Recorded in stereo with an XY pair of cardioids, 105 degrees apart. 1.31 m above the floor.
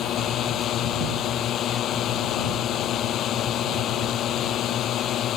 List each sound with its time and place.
0.0 s a drone: 65° left